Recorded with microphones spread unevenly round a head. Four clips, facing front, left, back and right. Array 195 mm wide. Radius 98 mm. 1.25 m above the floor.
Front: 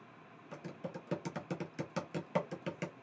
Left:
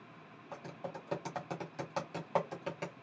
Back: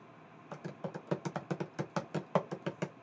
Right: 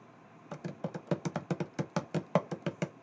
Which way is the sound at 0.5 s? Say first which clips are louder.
Right 4 dB, back 2 dB; 85° right.